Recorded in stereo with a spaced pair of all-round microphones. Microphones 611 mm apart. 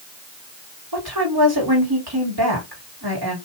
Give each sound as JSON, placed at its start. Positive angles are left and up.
{"t": 0.9, "sound": "a woman speaking", "side_deg": -35, "distance_m": 3.0}